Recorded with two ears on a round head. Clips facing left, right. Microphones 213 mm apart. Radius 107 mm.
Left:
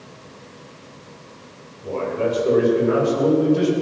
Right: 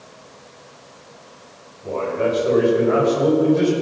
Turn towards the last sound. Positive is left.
turn(degrees=45)  # may be behind; listen again after turning